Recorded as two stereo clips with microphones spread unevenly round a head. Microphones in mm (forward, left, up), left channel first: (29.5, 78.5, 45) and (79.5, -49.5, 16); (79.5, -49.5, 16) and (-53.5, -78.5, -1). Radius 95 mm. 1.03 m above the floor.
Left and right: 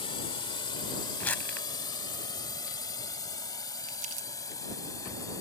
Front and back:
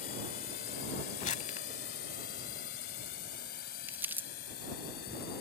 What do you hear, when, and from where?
0.0 s a drone: 60° left; by 5.4 s 45° left
1.2 s crumpling: 45° left
3.9 s crumpling: 95° right